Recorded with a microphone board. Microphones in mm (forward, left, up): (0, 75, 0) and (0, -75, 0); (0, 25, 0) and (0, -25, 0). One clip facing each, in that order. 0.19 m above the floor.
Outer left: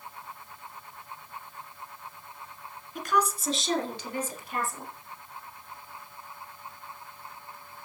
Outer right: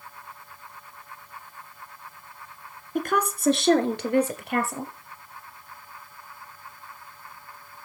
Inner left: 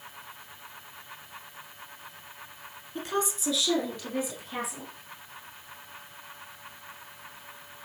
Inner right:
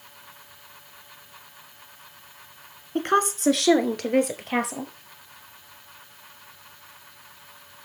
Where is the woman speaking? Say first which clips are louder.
Outer right 2 dB, inner right 9 dB; 55° right (ahead or behind), 1.9 m; by 4.9 s 75° right (ahead or behind), 4 m.